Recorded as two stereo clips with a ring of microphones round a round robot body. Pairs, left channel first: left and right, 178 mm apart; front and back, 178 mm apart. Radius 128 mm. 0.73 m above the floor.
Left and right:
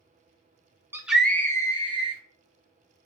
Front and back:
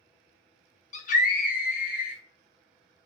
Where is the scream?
15° right, 0.7 m; by 2.2 s 35° left, 1.2 m.